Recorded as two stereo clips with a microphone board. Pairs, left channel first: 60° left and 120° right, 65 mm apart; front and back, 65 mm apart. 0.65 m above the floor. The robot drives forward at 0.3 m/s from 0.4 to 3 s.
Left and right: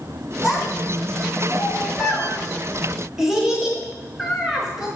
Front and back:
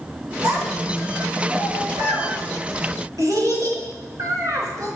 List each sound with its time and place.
0.4 s a child speaking: 155° left, 3.5 m